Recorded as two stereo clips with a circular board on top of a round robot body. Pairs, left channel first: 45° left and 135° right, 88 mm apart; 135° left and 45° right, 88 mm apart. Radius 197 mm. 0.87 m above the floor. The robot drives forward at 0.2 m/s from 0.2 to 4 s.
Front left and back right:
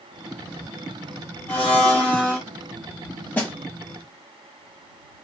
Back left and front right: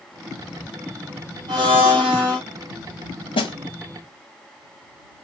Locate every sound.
1.5 s a blender: 30° right, 1.0 m; by 2.4 s 35° right, 0.8 m
3.4 s a snare drum: 120° left, 0.6 m